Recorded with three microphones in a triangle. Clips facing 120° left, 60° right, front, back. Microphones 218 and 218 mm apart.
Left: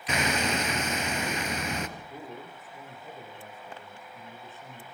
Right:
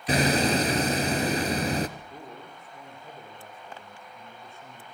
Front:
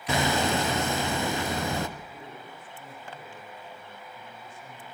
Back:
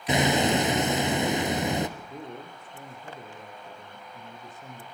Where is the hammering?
110° right, 1.7 m.